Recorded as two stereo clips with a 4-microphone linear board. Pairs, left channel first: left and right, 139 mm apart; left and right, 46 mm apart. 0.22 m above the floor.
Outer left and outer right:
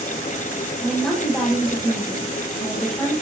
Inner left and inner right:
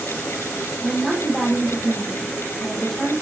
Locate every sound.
0.8 s a woman speaking: 5° left (ahead or behind), 7.5 m